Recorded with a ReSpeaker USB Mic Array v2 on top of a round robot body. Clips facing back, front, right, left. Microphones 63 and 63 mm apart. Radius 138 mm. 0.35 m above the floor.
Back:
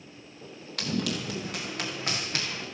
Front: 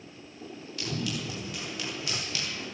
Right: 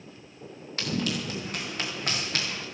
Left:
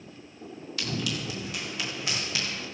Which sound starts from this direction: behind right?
Running footsteps, at 0.8 s.